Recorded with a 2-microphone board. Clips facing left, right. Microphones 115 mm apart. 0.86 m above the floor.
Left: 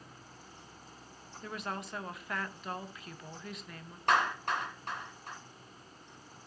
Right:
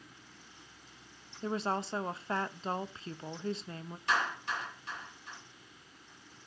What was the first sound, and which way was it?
A woman speaking, 30° right (ahead or behind).